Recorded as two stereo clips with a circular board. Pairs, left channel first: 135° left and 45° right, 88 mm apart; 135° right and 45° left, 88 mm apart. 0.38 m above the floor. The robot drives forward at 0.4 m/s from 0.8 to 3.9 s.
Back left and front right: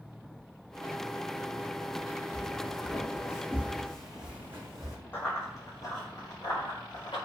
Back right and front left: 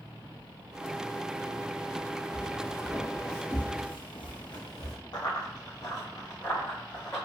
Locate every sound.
2.3 s footsteps: 160° left, 1.5 m; by 5.0 s 90° right, 1.3 m
5.1 s running footsteps: 165° right, 1.0 m; by 7.2 s 165° left, 2 m